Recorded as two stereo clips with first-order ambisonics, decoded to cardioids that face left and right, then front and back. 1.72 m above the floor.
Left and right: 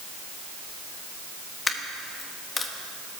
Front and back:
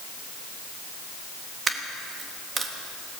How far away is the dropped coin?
About 1.1 m.